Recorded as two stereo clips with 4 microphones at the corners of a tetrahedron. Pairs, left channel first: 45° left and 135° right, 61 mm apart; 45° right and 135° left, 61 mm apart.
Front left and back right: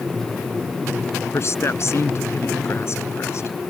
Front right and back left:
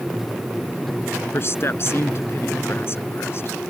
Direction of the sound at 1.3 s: 5° left.